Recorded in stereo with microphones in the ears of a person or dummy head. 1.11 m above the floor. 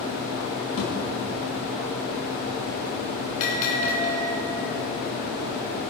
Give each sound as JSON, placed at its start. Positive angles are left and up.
{"t": 0.8, "sound": "a thud", "side_deg": 35, "distance_m": 4.5}
{"t": 3.4, "sound": "a bell", "side_deg": 40, "distance_m": 4.0}